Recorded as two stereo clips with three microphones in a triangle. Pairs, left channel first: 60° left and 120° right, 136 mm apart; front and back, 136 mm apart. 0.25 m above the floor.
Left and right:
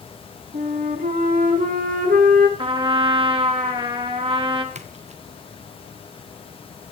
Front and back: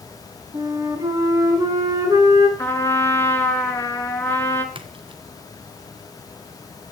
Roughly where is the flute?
Behind right.